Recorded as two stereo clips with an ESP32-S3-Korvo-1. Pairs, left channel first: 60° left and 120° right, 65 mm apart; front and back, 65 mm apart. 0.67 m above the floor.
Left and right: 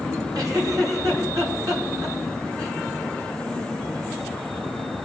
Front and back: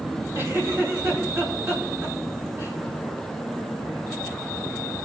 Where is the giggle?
135° right, 4.5 m.